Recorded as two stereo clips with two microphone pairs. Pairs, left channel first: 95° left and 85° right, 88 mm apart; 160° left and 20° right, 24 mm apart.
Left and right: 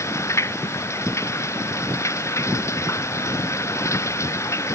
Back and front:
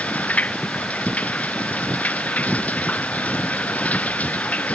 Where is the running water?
155° left.